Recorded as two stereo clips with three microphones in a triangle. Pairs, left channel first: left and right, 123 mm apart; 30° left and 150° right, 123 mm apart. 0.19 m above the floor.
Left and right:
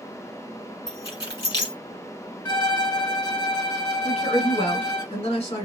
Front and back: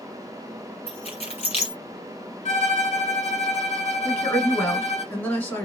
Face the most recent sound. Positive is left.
turn(degrees=100)